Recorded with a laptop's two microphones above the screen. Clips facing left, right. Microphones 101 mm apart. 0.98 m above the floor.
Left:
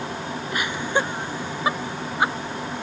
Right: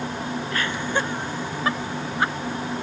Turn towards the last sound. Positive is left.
turn(degrees=15)  # may be behind; listen again after turning